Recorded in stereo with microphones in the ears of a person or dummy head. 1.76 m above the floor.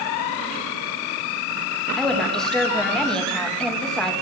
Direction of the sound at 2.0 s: Centre (ahead or behind).